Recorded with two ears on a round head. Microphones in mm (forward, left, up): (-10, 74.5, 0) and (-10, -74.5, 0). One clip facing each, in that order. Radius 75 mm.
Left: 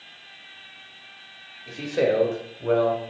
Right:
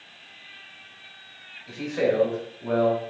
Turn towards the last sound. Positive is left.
turn(degrees=60)  # may be behind; listen again after turning